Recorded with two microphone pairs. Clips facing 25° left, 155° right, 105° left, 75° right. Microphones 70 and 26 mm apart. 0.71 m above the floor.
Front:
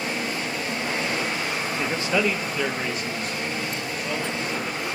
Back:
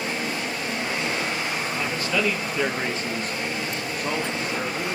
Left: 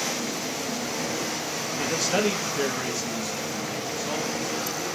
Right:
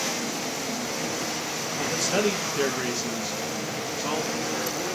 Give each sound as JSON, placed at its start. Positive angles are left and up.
{"t": 1.8, "sound": "a man speaking", "azimuth_deg": 45, "distance_m": 1.1}